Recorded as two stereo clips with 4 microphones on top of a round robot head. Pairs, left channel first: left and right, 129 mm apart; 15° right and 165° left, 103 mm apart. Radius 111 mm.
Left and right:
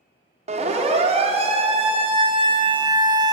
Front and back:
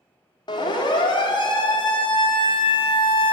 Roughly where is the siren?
Ahead right.